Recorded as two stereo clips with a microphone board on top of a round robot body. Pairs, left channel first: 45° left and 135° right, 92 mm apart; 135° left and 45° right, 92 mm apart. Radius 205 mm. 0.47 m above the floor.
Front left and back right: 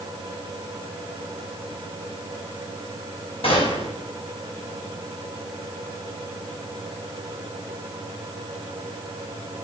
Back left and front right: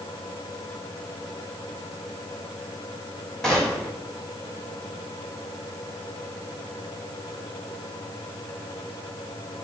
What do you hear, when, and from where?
3.4 s a gunshot: 50° left, 6.5 m